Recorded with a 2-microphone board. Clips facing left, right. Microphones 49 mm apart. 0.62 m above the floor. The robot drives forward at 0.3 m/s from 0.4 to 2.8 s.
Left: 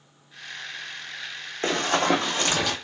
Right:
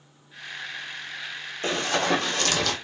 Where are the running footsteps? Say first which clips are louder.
Left 2 dB; 50° left (ahead or behind), 1.3 m; by 2.8 s 15° left (ahead or behind), 1.3 m.